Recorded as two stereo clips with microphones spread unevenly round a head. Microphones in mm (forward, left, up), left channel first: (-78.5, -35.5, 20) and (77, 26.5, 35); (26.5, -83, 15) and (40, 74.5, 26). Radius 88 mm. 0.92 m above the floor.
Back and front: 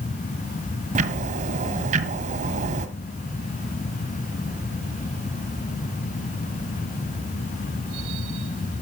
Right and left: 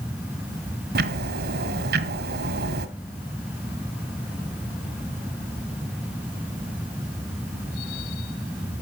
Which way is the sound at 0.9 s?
70° left.